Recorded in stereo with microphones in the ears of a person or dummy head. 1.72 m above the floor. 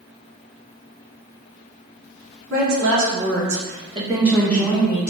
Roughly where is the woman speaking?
Right.